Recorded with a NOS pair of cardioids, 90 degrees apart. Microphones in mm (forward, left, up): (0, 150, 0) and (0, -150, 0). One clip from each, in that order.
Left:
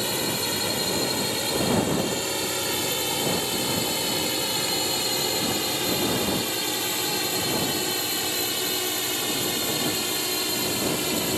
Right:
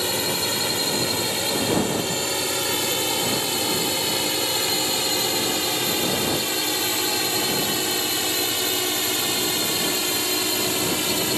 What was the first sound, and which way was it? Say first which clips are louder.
A drone: right 3 dB; 25° right.